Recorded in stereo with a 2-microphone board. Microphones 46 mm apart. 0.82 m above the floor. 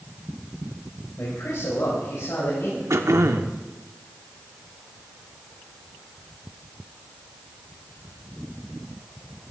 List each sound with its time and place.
1.2 s a man speaking: 80° left, 4.5 m
2.9 s throat clearing: 85° right, 1.0 m